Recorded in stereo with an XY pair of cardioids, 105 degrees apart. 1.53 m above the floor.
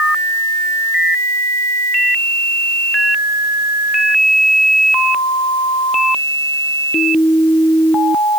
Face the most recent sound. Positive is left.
No sound to turn to.